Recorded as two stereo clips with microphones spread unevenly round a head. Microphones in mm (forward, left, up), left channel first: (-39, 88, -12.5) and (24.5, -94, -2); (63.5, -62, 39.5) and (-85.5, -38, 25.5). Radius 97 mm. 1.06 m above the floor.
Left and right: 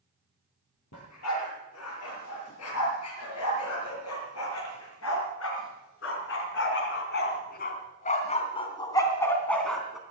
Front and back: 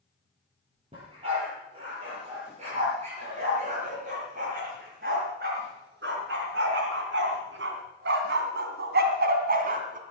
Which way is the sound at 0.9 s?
105° left.